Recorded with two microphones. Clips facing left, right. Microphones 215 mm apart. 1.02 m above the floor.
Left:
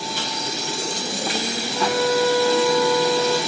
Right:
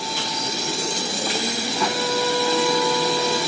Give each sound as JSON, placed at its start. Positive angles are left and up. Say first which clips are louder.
{"t": 1.7, "sound": "a violin", "louder": "left 6 dB", "side_deg": 5, "distance_m": 6.5}